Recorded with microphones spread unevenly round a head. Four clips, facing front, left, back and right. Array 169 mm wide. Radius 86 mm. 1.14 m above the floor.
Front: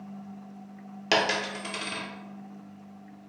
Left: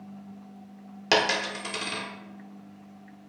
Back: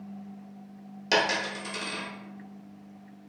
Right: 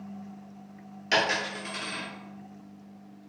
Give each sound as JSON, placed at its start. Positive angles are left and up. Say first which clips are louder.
{"t": 1.1, "sound": "a dropped coin", "louder": "left 2 dB, even", "azimuth_deg": 65, "distance_m": 0.9}